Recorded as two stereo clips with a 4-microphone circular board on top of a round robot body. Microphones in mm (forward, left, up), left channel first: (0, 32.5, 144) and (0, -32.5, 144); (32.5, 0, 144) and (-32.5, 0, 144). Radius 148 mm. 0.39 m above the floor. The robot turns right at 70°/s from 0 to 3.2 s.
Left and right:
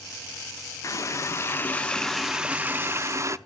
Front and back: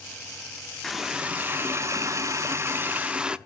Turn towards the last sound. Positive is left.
turn(degrees=-110)